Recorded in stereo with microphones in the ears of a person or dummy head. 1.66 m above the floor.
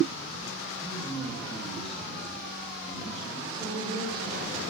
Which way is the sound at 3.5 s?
25° right (ahead or behind).